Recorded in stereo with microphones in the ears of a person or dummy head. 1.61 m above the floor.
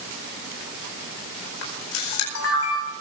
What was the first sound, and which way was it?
A camera shutter, 85° left.